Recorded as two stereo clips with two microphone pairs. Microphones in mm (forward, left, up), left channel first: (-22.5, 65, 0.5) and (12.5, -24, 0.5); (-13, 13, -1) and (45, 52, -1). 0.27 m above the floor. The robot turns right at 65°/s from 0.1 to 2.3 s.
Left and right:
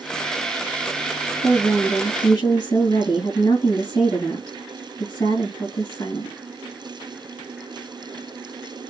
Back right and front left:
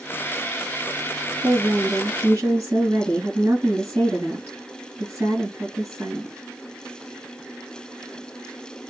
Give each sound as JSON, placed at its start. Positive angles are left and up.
{"t": 1.4, "sound": "a woman speaking", "azimuth_deg": 25, "distance_m": 3.5}